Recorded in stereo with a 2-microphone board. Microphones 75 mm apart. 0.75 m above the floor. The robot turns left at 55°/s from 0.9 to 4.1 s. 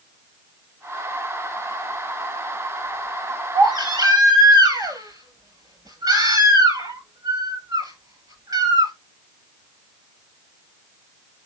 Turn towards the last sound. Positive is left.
turn(degrees=-125)